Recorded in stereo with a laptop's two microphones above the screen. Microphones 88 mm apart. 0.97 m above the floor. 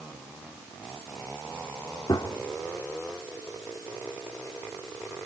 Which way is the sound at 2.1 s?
55° left (ahead or behind).